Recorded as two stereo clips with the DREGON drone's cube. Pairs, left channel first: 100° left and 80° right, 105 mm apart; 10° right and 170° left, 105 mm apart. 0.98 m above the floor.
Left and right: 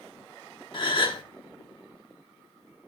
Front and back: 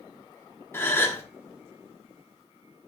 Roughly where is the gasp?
Ahead left.